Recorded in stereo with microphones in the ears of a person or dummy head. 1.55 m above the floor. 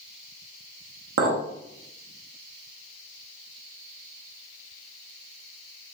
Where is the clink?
55° right (ahead or behind), 0.9 m.